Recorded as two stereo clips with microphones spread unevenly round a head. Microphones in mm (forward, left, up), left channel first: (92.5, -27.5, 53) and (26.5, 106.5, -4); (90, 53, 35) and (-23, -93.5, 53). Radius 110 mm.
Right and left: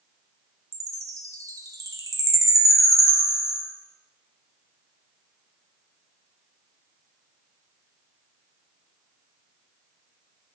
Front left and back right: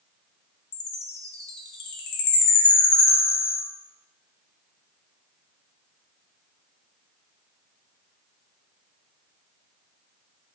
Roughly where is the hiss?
I don't hear a hiss.